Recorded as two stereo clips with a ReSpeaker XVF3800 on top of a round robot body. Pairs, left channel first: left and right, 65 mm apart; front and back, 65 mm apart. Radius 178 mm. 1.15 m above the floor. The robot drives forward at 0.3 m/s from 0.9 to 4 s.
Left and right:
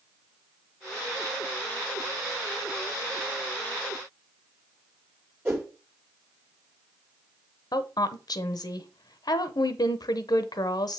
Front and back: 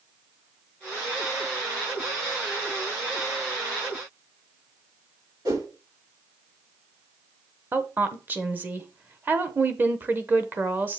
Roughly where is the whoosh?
Behind right.